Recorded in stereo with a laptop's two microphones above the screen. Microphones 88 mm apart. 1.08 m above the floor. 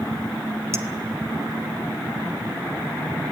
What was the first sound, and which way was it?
A clink, 35° right (ahead or behind).